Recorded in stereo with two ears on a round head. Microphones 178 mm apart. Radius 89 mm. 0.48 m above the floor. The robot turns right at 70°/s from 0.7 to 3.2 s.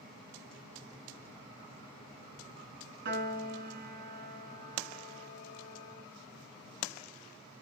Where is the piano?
55° right (ahead or behind), 0.8 m; by 6.1 s 45° right (ahead or behind), 0.8 m.